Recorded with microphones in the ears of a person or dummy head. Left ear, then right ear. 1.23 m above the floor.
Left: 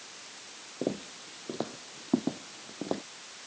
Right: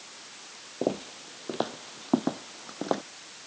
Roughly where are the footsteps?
Right.